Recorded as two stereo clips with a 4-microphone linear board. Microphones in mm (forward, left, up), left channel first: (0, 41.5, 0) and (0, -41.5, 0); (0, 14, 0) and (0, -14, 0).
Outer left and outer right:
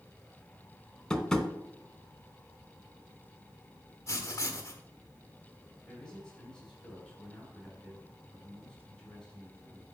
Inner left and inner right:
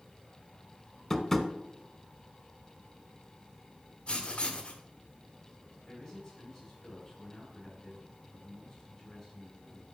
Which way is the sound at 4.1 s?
40° left (ahead or behind).